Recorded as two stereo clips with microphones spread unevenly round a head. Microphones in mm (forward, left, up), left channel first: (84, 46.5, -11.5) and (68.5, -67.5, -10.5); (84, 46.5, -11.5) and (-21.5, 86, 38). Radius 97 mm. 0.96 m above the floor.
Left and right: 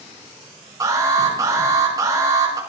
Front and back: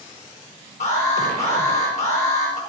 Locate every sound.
0.8 s an alarm: 40° right, 6.5 m